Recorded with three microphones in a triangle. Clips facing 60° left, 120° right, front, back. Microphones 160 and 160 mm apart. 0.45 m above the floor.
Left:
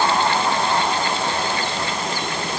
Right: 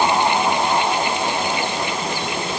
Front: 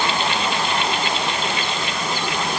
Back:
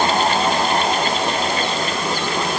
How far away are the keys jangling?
I don't hear keys jangling.